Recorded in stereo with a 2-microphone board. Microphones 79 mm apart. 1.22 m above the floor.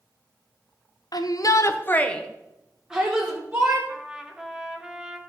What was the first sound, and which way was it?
A shout, 60° left (ahead or behind).